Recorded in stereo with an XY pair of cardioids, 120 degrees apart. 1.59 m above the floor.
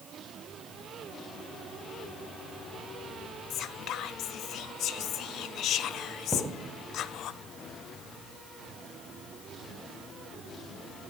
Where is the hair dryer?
No hair dryer in this recording.